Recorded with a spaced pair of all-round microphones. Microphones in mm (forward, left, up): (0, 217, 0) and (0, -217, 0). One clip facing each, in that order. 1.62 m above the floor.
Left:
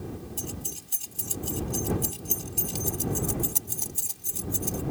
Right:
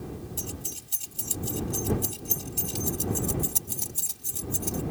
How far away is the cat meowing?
I don't hear a cat meowing.